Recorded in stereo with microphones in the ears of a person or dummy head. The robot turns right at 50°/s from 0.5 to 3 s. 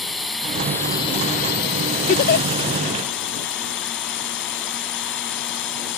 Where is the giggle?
35° left (ahead or behind); by 2.5 s 55° left (ahead or behind).